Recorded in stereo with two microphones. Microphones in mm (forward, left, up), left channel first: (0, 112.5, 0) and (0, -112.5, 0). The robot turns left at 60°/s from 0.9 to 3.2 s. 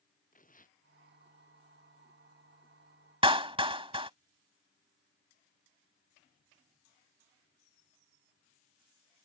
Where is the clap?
25° right (ahead or behind).